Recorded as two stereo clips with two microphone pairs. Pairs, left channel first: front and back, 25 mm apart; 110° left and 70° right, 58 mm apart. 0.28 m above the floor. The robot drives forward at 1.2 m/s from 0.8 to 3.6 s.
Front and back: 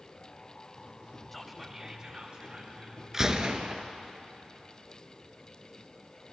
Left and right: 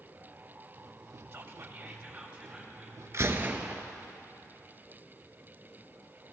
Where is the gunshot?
110° right, 0.8 m; by 3.8 s 135° right, 1.1 m.